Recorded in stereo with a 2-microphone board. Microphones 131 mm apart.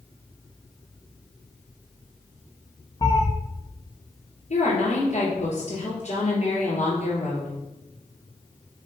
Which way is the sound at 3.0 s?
25° left (ahead or behind).